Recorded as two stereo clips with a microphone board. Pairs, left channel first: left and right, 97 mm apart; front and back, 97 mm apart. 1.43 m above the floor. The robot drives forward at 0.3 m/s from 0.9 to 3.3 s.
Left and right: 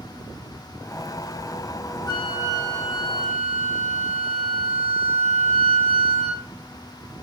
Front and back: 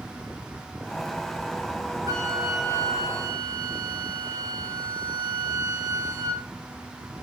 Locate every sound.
2.1 s a flute: 125° left, 2.5 m; by 6.4 s 130° left, 2.5 m